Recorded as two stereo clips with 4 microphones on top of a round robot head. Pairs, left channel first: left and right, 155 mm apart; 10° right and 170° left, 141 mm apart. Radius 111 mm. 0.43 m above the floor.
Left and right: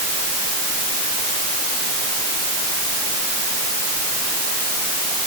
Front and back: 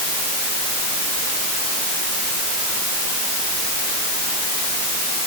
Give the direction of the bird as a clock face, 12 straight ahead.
I don't hear a bird.